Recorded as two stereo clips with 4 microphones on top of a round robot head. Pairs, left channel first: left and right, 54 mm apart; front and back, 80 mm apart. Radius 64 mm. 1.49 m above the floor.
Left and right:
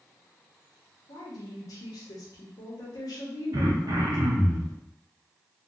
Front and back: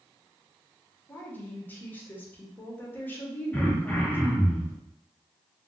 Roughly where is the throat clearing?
Right.